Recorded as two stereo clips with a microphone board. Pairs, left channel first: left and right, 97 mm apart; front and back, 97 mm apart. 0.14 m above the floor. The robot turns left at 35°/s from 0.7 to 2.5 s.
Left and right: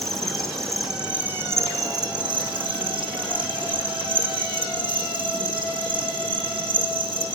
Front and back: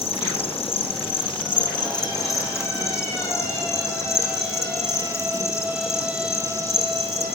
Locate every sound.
0.0 s an insect: straight ahead, 1.5 m; by 7.4 s 60° right, 1.5 m